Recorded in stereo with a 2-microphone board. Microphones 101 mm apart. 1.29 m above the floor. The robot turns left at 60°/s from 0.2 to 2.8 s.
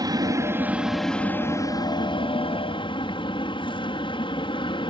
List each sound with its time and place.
0.0 s an aircraft: 135° right; by 4.9 s 70° left